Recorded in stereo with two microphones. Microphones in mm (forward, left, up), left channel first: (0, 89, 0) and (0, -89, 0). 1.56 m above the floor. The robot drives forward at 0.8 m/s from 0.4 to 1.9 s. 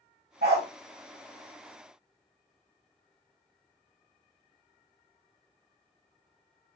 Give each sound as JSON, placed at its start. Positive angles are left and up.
{"t": 0.4, "sound": "a dog barking", "side_deg": -60, "distance_m": 2.0}